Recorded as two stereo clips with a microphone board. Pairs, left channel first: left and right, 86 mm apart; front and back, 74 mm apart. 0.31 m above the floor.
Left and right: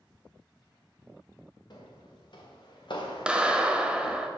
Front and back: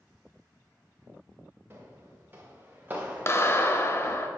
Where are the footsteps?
120° left, 2.5 m; by 4.2 s 100° left, 1.3 m.